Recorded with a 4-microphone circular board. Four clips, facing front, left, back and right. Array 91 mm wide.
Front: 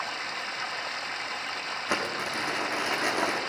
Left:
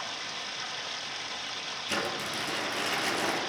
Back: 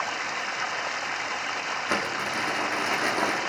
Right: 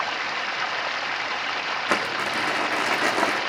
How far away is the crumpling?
About 3.5 m.